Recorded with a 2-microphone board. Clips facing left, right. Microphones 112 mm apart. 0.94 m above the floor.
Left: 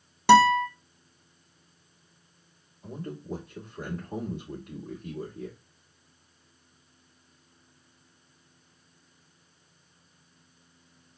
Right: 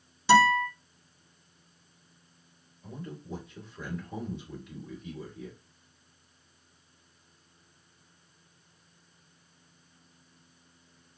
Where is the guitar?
60° left (ahead or behind), 0.9 m.